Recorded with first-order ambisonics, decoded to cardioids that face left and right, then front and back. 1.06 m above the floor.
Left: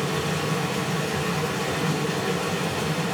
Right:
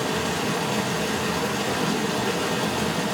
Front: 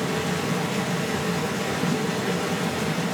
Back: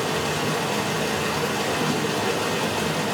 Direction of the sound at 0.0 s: 145° right.